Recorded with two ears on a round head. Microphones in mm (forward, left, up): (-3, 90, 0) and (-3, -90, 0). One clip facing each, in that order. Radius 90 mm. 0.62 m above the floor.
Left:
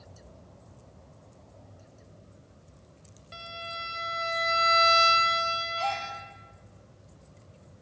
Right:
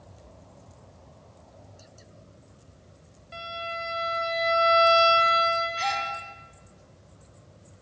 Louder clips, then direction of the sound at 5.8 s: Right 1 dB; 20° right (ahead or behind).